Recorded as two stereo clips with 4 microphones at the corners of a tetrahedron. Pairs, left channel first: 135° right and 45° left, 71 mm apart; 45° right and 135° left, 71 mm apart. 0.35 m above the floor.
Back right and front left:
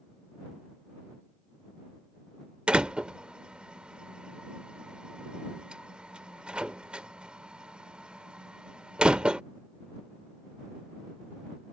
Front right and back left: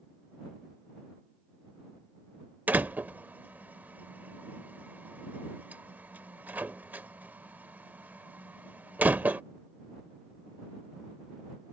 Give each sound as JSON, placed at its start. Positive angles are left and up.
{"t": 2.7, "sound": "a door slam", "azimuth_deg": 105}